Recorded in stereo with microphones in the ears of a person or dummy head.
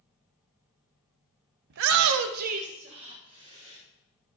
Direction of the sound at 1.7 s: 50° right (ahead or behind).